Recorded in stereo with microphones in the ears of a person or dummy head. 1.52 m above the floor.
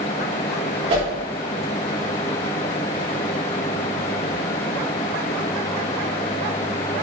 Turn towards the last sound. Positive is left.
turn(degrees=-35)  # may be behind; listen again after turning